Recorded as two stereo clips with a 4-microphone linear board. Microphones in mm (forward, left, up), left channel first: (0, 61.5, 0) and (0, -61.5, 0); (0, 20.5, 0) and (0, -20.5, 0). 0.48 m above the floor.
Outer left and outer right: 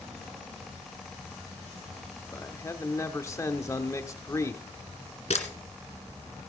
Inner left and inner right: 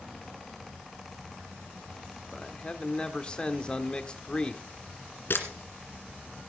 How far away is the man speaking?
About 1.1 m.